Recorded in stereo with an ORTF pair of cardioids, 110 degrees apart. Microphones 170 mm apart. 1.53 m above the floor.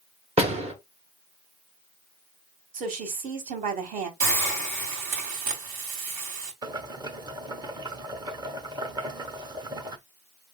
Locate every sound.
0.4 s a door slam: 40° right, 1.5 m
2.7 s a woman speaking: 55° right, 2 m
4.2 s a hiss: 65° right, 2.5 m
6.6 s boiling: 25° right, 0.9 m